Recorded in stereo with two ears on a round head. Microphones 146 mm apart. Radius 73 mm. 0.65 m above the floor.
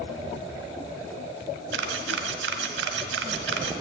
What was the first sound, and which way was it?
A camera shutter, 80° right.